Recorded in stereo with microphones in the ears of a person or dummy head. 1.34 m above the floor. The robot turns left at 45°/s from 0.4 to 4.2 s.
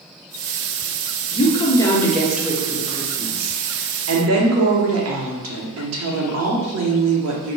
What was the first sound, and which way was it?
A woman speaking, 40° left.